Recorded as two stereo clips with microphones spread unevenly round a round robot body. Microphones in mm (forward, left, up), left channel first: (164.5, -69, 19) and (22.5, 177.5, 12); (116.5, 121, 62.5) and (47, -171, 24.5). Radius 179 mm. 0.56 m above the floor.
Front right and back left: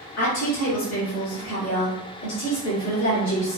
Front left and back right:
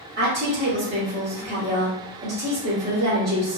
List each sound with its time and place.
0.2 s a woman speaking: 70° right, 1.6 m